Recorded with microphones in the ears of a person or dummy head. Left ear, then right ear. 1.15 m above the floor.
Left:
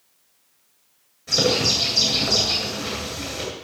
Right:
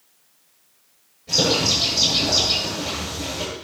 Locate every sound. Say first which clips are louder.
1.3 s a bird: even; 55° left (ahead or behind), 9 m